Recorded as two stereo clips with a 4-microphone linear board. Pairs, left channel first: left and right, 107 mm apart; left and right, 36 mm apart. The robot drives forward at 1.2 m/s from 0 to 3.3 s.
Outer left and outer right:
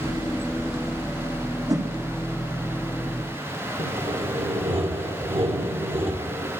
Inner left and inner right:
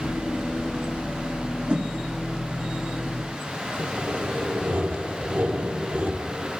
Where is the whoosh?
35° right (ahead or behind), 2 m; by 1.9 s 40° right (ahead or behind), 2 m.